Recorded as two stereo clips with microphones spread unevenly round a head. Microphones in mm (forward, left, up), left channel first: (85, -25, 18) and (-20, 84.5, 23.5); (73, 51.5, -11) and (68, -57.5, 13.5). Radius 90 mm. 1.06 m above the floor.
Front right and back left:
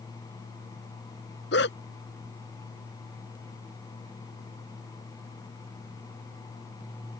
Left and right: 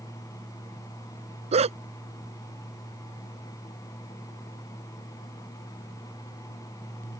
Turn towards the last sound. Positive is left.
turn(degrees=-80)